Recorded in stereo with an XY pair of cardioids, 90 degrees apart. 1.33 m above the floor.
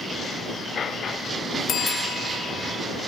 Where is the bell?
60° left.